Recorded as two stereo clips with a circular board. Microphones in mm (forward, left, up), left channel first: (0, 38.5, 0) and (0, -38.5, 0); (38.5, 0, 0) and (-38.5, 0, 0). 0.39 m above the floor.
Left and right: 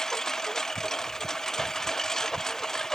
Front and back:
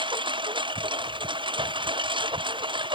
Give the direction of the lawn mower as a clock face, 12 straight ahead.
6 o'clock.